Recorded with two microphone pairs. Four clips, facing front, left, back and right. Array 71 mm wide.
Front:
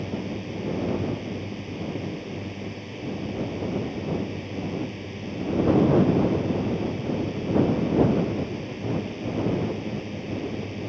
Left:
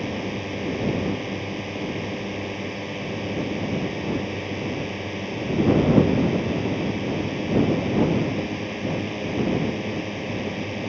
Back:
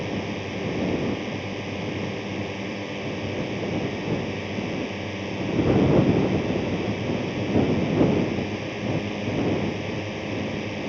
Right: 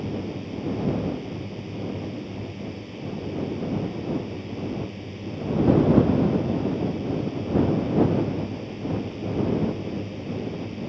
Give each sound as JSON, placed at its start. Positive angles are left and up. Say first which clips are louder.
{"t": 0.0, "sound": "a drone", "louder": "left 2 dB, back 2 dB", "azimuth_deg": 130}